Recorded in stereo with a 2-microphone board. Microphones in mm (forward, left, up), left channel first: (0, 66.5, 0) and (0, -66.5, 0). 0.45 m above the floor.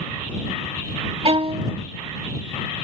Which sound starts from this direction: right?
A violin, at 1.2 s.